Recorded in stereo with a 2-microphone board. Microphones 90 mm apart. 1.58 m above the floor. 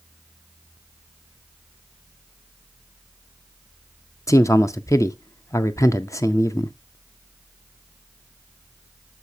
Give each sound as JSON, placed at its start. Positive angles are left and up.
{"t": 4.3, "sound": "a man speaking", "side_deg": 35, "distance_m": 0.6}